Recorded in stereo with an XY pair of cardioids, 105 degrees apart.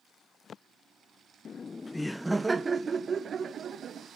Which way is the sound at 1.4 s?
50° left.